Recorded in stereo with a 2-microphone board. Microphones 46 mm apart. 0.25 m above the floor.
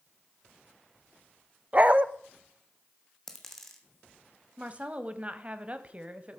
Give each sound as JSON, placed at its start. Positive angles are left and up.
{"t": 1.7, "sound": "a dog barking", "side_deg": -35, "distance_m": 0.5}
{"t": 3.3, "sound": "a dropped coin", "side_deg": 10, "distance_m": 1.8}
{"t": 4.6, "sound": "a woman speaking", "side_deg": -30, "distance_m": 1.0}